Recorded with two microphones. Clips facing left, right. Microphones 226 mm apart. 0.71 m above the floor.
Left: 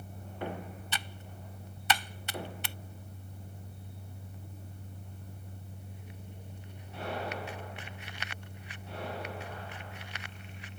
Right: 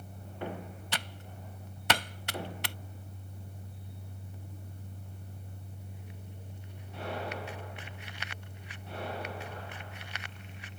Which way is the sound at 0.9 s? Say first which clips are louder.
Right 2 dB; 70° right (ahead or behind).